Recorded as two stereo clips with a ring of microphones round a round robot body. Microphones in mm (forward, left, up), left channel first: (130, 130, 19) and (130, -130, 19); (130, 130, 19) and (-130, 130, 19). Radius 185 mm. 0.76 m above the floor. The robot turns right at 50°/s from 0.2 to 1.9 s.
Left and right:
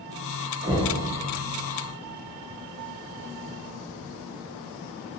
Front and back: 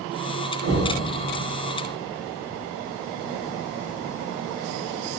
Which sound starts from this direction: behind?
Knocking, at 0.6 s.